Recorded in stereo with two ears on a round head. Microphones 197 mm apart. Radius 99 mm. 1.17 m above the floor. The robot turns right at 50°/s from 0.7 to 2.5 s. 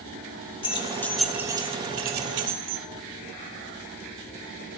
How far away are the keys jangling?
About 2 m.